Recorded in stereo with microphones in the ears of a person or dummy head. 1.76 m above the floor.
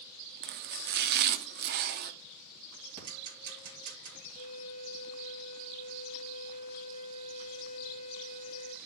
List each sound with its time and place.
0.4 s chopping: 55° right (ahead or behind), 0.6 m
3.0 s ticking: 50° right (ahead or behind), 3 m
4.4 s a violin: 40° left (ahead or behind), 1.9 m